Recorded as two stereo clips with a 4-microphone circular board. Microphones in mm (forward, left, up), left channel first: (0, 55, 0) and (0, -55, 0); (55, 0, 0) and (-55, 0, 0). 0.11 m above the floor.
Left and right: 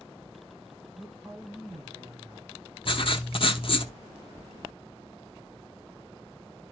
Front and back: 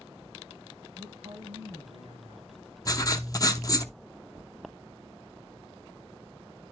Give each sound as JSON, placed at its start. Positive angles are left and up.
{"t": 1.0, "sound": "a man speaking", "azimuth_deg": -135, "distance_m": 4.5}
{"t": 2.9, "sound": "writing", "azimuth_deg": 55, "distance_m": 0.8}